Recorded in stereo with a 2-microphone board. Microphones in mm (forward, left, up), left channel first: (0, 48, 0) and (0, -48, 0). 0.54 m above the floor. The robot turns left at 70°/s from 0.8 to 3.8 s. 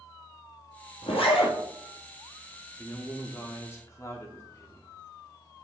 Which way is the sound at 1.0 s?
105° left.